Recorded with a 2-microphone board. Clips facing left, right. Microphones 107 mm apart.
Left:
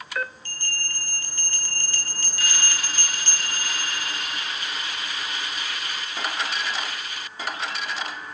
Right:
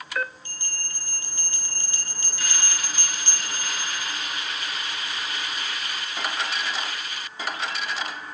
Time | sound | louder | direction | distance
0.5 | a bell | left 6 dB | 20° right (ahead or behind) | 0.9 m